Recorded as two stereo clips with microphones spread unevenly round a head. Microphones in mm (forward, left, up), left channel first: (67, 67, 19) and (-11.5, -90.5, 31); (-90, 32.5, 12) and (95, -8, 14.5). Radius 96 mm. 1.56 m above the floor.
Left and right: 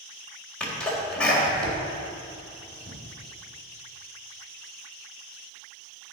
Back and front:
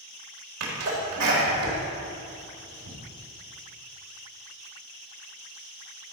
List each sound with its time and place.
0.6 s a sneeze: 20° right, 4 m